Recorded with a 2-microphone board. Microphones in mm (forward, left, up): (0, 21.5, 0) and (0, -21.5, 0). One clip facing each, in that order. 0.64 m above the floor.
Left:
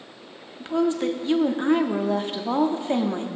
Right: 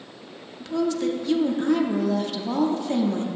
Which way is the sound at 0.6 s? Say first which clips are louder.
Left 1 dB; 30° left (ahead or behind).